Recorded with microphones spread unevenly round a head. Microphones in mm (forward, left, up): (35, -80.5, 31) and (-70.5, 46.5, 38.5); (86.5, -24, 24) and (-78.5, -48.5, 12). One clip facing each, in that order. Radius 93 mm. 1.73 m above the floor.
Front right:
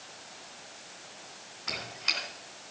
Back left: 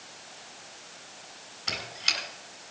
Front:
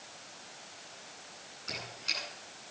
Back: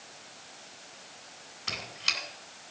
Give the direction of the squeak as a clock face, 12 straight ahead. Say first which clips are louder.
Back left 1 dB, back 2 dB; 6 o'clock.